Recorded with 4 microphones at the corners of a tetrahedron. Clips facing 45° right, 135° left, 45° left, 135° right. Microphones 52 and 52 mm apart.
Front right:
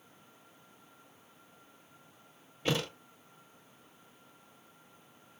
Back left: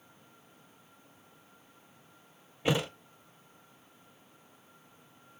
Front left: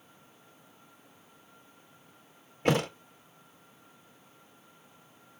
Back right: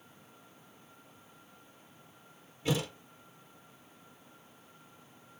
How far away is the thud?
About 0.5 m.